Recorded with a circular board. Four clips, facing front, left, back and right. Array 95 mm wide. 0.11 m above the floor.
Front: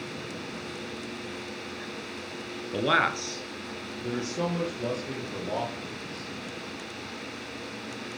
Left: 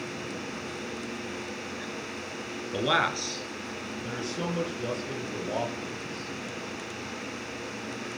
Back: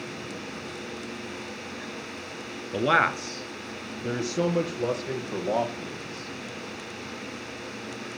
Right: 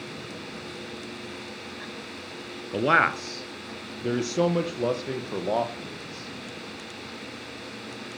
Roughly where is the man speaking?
Right.